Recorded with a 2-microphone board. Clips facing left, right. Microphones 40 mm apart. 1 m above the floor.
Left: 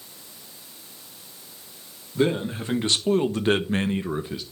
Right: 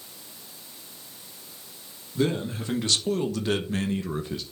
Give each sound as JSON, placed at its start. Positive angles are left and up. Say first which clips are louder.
{"t": 2.1, "sound": "a man speaking", "louder": "left 3 dB", "side_deg": 25, "distance_m": 2.5}